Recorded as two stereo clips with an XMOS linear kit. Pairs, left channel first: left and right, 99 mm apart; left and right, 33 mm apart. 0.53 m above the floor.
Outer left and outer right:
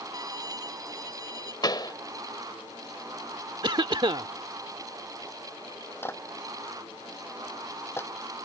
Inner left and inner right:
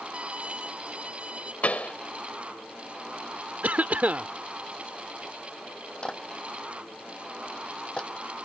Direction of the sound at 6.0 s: 25° left (ahead or behind).